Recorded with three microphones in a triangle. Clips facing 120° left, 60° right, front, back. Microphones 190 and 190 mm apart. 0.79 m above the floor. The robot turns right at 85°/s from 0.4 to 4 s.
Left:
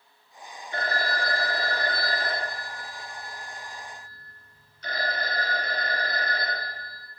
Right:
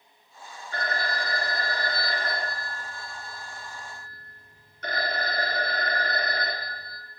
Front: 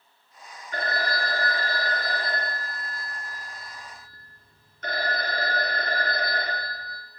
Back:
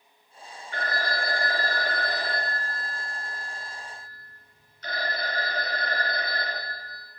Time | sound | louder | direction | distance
0.7 | a phone ringing | left 2 dB, front 2 dB | 50° left | 0.8 m